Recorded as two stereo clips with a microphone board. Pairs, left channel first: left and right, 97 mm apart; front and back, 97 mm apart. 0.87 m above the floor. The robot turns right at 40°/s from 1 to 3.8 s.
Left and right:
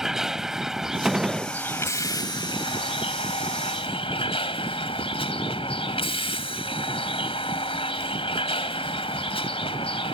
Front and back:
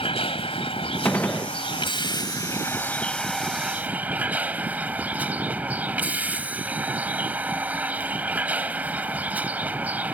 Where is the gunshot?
30° right; by 1.5 s 10° right.